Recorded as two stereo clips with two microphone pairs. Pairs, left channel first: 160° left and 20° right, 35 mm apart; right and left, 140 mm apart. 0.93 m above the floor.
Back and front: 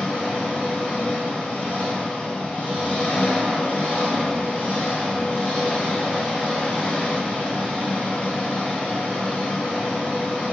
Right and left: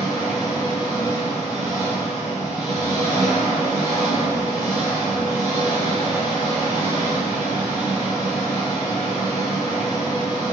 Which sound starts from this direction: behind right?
An engine running, at 0.0 s.